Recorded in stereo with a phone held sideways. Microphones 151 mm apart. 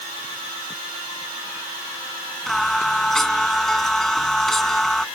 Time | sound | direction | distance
2.5 | singing | 5° left (ahead or behind) | ?